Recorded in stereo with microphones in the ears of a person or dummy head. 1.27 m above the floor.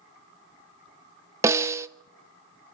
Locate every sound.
1.4 s a snare drum: 20° right (ahead or behind), 0.7 m